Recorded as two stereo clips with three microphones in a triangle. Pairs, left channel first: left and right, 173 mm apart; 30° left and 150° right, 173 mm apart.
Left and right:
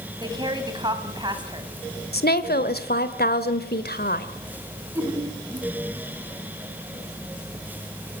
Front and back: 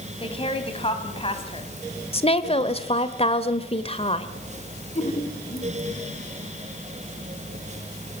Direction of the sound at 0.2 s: 25° right.